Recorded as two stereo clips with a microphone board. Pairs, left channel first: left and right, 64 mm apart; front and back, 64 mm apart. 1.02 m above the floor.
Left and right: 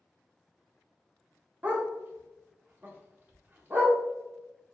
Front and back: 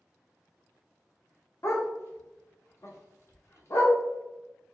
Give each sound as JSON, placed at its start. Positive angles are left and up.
{"t": 1.6, "sound": "a dog barking", "azimuth_deg": -35, "distance_m": 0.7}